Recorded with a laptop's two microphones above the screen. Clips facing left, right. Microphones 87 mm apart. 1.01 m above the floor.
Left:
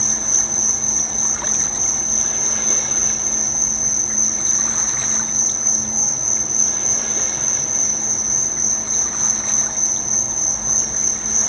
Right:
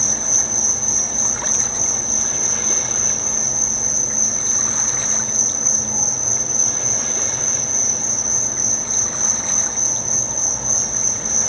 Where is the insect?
75° right (ahead or behind), 2.5 m.